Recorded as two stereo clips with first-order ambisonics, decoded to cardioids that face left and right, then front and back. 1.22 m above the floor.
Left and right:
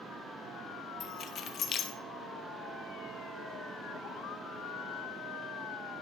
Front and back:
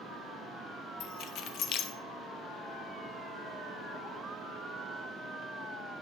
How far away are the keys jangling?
About 0.5 m.